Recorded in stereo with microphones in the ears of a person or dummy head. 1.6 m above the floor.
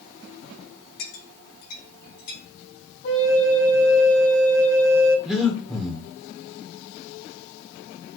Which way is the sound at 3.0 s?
75° left (ahead or behind).